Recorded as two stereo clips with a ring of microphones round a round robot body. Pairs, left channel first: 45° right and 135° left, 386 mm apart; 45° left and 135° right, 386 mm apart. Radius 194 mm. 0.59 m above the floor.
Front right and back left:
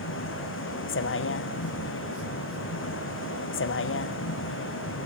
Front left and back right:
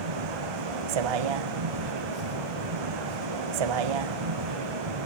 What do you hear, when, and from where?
0.0 s a vehicle: 105° right